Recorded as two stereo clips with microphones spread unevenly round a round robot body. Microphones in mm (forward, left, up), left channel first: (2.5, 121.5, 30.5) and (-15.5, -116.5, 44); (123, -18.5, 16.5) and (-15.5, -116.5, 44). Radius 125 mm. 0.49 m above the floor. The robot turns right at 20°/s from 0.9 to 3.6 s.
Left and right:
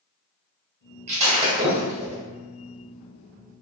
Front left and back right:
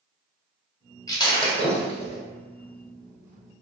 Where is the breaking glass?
30° right, 1.6 m; by 2.2 s 10° right, 1.6 m.